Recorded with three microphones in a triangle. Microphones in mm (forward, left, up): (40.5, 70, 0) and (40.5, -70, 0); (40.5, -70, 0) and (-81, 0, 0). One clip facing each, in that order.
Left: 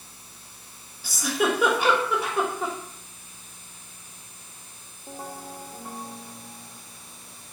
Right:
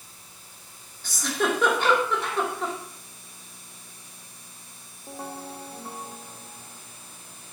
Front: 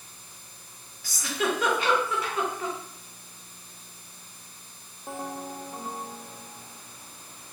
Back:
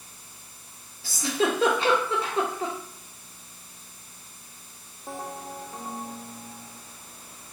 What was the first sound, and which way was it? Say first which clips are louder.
A giggle: left 2 dB, back 3 dB; 160° left.